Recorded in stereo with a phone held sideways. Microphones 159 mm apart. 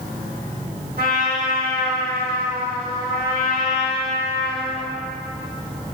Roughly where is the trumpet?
Right.